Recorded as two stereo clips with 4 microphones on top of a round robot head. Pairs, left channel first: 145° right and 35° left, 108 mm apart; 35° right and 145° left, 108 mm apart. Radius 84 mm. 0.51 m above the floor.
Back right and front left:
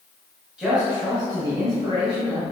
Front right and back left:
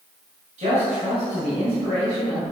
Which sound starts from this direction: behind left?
A man speaking, at 0.6 s.